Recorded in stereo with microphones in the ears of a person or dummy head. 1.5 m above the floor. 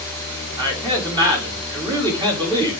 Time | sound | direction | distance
0.6 | a man speaking | 25° right (ahead or behind) | 4 m